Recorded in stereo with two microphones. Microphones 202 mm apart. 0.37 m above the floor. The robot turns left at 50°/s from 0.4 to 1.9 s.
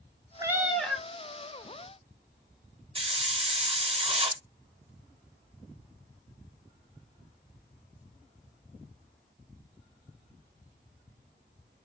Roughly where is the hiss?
Right.